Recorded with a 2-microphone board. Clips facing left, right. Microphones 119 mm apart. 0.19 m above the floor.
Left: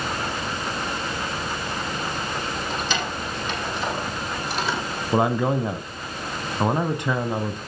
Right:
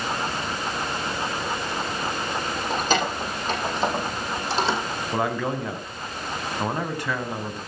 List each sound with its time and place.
2.7 s keys jangling: 45° right (ahead or behind), 6.5 m; by 4.8 s 30° right (ahead or behind), 7 m
5.1 s a man speaking: 20° left (ahead or behind), 1.1 m